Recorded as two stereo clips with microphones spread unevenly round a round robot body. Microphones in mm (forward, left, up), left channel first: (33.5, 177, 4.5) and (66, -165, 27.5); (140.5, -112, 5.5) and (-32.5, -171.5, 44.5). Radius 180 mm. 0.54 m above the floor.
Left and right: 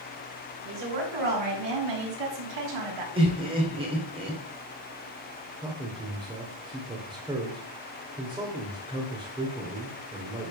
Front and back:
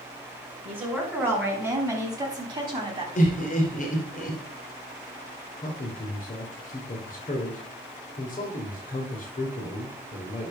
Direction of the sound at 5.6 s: 5° right.